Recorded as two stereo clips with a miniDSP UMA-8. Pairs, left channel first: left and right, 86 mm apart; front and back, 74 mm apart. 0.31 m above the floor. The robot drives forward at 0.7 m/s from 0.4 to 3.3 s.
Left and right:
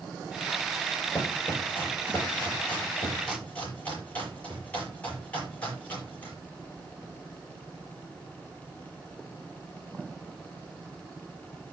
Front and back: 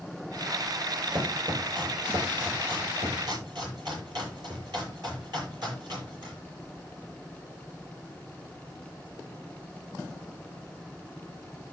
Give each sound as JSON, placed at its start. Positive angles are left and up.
{"t": 1.1, "sound": "chopping", "azimuth_deg": 160, "distance_m": 9.0}